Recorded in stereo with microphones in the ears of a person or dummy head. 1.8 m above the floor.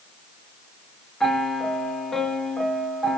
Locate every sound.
1.2 s a piano: 5° left (ahead or behind), 1.1 m